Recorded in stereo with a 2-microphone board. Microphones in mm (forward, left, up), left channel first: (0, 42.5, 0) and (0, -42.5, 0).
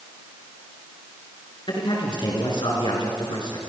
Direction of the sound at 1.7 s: 70° left (ahead or behind).